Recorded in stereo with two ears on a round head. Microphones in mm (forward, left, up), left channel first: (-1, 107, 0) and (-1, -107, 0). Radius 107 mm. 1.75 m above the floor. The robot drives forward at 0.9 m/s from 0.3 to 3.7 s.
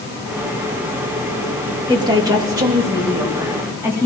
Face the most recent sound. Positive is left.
turn(degrees=-15)  # may be behind; listen again after turning